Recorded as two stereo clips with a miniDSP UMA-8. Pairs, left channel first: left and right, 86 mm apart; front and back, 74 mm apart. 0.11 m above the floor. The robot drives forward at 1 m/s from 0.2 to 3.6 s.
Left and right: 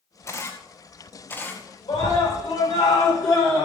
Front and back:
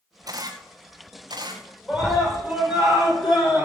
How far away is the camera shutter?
About 2.0 m.